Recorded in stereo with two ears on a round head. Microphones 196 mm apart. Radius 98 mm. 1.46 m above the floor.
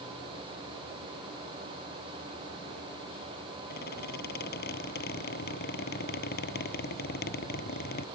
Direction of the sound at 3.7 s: 45° left (ahead or behind).